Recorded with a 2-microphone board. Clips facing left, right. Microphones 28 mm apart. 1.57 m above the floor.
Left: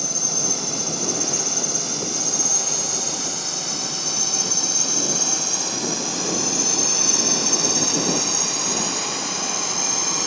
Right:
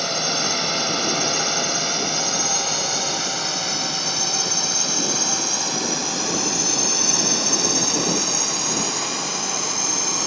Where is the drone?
50° right (ahead or behind); by 10.3 s centre (ahead or behind).